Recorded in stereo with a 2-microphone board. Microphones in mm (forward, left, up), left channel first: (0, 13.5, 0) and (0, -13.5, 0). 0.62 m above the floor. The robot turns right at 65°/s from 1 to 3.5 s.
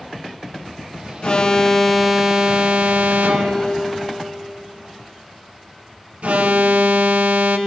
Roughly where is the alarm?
Behind left.